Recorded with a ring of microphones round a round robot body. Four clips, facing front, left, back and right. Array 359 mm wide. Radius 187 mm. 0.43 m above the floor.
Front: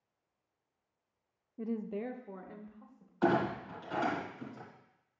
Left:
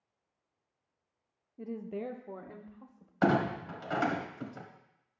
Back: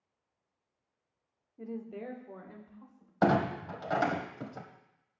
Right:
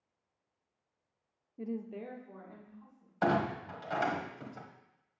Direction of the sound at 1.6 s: 20° right.